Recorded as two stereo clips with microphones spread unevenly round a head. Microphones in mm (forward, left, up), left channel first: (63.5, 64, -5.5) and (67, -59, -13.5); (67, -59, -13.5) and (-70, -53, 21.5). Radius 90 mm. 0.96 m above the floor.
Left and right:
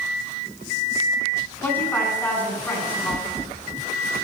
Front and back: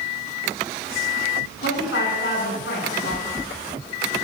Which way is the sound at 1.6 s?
20° left.